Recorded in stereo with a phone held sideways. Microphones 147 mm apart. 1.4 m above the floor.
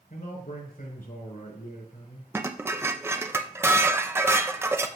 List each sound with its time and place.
0.1 s a man speaking: 85° left, 4.5 m
2.3 s dishes clattering: 15° right (ahead or behind), 0.6 m